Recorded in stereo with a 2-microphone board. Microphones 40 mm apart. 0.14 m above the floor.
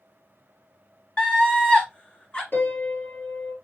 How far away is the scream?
About 2 m.